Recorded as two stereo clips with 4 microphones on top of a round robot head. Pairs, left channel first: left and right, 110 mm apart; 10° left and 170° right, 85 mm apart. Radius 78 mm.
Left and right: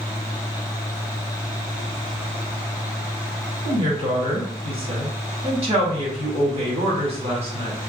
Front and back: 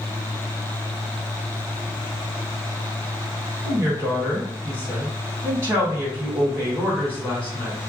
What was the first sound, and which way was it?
A woman speaking, 115° right.